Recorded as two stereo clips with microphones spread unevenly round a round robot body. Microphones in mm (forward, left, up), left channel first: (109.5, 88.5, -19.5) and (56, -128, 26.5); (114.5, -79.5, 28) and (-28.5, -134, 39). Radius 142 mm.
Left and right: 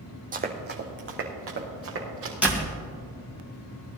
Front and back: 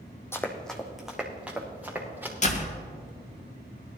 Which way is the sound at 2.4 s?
15° right.